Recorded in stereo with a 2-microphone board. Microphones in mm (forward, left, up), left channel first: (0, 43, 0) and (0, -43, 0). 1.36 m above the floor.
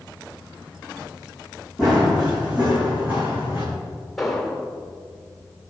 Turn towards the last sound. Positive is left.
turn(degrees=0)  # may be behind; listen again after turning